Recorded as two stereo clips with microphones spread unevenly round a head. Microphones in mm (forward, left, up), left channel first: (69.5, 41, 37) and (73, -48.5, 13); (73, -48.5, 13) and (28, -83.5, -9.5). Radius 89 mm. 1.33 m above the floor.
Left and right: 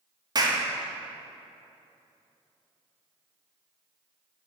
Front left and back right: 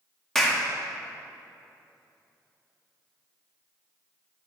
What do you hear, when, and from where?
0.3 s a clap: 45° right, 2 m